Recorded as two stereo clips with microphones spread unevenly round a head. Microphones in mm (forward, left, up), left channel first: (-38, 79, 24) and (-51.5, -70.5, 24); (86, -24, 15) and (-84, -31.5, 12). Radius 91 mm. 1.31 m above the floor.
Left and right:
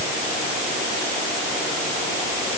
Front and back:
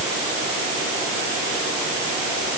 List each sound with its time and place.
Only background noise.